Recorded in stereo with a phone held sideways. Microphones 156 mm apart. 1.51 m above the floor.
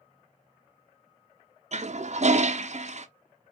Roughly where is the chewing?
I don't hear chewing.